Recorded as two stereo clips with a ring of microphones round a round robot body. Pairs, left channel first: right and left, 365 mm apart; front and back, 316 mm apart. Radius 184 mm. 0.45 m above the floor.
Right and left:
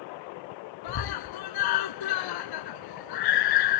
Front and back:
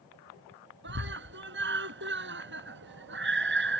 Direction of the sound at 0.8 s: 120° right.